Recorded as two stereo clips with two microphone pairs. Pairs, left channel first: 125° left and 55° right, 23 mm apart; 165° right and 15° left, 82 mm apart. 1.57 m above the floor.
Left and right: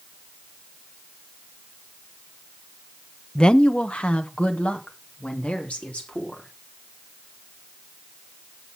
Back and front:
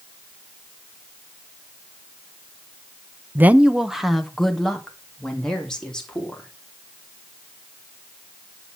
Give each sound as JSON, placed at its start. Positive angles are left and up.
{"t": 3.4, "sound": "a woman speaking", "azimuth_deg": 75, "distance_m": 0.6}